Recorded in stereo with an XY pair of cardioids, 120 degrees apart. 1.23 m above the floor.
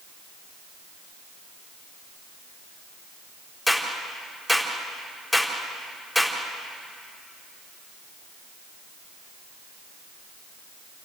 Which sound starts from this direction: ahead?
A clap, at 3.7 s.